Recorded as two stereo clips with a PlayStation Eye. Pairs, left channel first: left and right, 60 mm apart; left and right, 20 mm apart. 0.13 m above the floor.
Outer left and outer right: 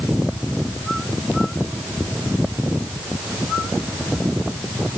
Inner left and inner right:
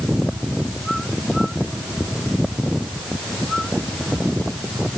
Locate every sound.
Only background noise.